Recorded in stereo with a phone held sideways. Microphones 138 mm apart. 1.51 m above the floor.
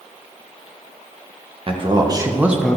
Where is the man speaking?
40° right (ahead or behind), 1.7 m; by 2.8 s 10° left (ahead or behind), 1.0 m.